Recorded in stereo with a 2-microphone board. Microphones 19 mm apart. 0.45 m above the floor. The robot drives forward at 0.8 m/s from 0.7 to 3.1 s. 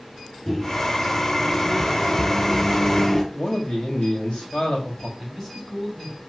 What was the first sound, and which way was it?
A microwave, 15° left (ahead or behind).